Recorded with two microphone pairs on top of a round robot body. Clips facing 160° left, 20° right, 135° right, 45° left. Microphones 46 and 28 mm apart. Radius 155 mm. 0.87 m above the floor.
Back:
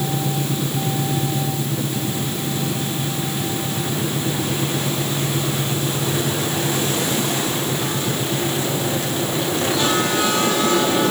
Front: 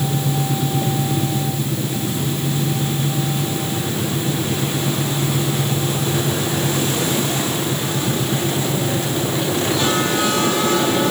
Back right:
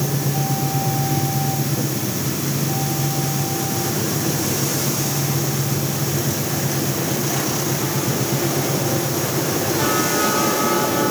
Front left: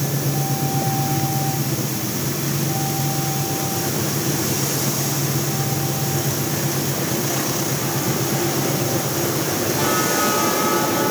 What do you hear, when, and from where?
Only background noise.